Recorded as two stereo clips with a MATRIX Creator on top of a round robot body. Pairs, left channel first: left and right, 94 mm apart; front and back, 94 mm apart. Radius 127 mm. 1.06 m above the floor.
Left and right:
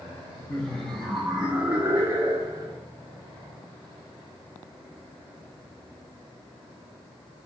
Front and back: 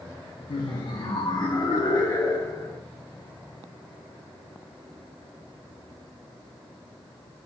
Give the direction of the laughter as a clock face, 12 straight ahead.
12 o'clock.